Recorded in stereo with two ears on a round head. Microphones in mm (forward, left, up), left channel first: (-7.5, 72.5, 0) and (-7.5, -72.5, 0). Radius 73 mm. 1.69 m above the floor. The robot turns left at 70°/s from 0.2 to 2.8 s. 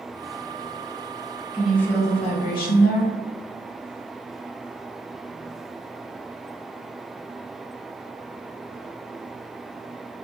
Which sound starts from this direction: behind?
A woman speaking, at 1.5 s.